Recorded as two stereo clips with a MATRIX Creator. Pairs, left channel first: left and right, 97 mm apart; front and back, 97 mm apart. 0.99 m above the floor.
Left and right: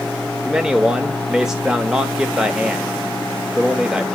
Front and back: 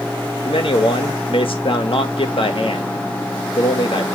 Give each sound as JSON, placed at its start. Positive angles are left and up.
{"t": 0.5, "sound": "a man speaking", "azimuth_deg": -10, "distance_m": 1.0}